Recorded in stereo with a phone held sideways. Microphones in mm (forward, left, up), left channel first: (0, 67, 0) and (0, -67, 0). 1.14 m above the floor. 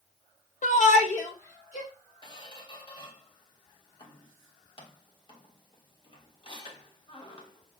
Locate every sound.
0.6 s a shout: 65° left (ahead or behind), 0.7 m; by 1.9 s 55° left (ahead or behind), 2.5 m
2.2 s a squeak: 35° left (ahead or behind), 0.8 m